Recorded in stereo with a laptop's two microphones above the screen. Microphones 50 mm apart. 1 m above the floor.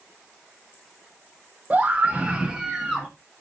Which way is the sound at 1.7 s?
25° right (ahead or behind).